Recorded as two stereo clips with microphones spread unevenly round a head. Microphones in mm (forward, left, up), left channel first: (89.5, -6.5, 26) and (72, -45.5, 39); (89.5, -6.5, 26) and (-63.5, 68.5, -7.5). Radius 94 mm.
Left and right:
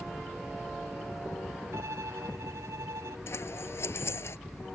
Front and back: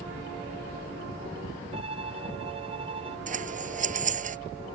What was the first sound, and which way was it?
A violin, 140° right.